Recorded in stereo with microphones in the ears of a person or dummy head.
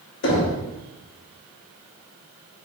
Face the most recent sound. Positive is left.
turn(degrees=55)  # may be behind; listen again after turning